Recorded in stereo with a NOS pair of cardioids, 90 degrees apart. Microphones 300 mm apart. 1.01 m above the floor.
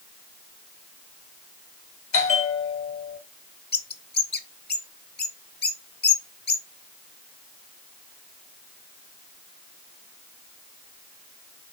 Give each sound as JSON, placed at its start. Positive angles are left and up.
{"t": 2.1, "sound": "a bell", "azimuth_deg": 45, "distance_m": 2.0}
{"t": 3.7, "sound": "a bird", "azimuth_deg": 35, "distance_m": 1.2}